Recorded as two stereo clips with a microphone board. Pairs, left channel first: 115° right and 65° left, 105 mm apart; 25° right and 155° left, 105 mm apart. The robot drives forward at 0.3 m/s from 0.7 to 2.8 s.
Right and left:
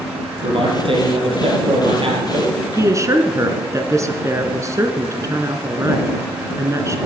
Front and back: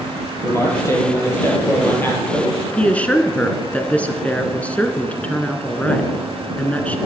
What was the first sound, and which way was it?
A man speaking, 40° left.